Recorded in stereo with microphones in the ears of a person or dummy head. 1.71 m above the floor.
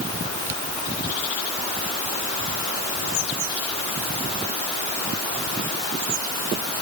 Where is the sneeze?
I don't hear a sneeze.